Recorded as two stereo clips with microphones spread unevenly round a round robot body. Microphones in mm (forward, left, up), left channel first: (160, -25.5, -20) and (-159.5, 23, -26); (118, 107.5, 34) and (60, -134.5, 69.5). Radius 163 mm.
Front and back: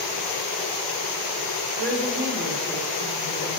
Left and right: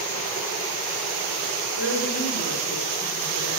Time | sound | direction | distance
1.8 | a woman speaking | 115° left | 3 m